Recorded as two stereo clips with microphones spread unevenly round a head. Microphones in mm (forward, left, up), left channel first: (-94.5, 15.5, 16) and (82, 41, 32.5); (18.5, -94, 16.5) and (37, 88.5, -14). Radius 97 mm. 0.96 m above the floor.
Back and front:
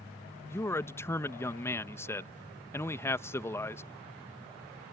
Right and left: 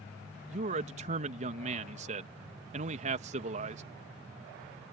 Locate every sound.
0.5 s a man speaking: 120° left